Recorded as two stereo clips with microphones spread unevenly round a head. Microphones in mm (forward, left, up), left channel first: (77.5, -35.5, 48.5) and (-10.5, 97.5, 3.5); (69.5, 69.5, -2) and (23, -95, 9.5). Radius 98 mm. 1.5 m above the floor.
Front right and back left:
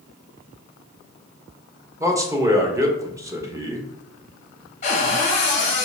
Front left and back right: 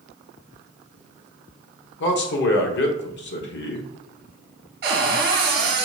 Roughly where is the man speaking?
Ahead left.